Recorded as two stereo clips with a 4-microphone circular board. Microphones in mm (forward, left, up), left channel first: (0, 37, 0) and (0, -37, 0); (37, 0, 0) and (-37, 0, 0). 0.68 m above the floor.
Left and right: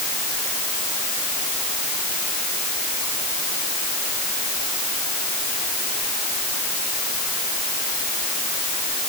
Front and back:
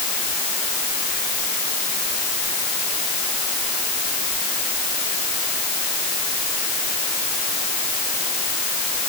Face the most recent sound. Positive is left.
No sound to turn to.